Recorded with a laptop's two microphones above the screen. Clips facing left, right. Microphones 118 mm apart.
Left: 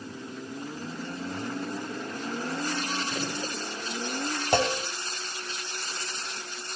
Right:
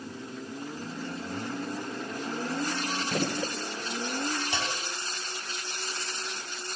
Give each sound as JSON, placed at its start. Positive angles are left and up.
{"t": 3.1, "sound": "a gunshot", "side_deg": -65, "distance_m": 1.7}
{"t": 4.5, "sound": "a clunk", "side_deg": 55, "distance_m": 1.2}